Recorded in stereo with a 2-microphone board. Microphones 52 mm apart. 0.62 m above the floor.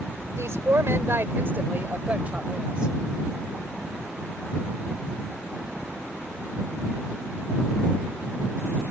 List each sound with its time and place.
0.4 s a woman speaking: 70° right (ahead or behind); by 2.9 s 20° right (ahead or behind)